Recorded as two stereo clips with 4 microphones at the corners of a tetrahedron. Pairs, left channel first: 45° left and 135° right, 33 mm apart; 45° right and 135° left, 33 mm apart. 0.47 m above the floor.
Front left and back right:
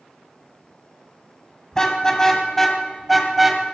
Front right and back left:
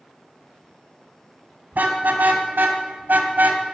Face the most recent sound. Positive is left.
turn(degrees=145)